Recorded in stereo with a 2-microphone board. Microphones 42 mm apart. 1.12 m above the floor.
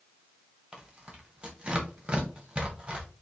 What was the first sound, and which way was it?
Tearing paper, 25° right (ahead or behind).